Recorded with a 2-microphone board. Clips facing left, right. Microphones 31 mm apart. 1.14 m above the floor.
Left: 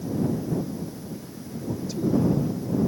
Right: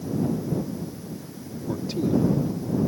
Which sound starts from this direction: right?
A man speaking, at 1.7 s.